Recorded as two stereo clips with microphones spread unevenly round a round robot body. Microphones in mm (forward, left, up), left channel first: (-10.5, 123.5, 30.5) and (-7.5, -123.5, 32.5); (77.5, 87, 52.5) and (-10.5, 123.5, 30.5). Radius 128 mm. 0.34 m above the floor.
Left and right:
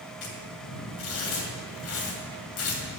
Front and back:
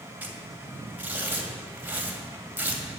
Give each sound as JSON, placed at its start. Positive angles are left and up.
{"t": 0.2, "sound": "tearing paper", "azimuth_deg": 95, "distance_m": 2.0}